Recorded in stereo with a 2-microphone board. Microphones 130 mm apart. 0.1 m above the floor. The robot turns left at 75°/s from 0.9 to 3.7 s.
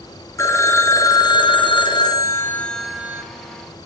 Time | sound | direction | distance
0.4 | a phone ringing | 145° left | 0.9 m